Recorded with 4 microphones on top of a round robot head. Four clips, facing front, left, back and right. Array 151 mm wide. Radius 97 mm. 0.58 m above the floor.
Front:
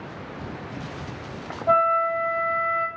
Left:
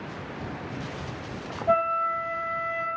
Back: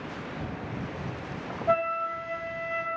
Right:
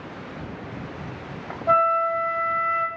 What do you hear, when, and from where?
1.7 s a flute: 45° right, 0.8 m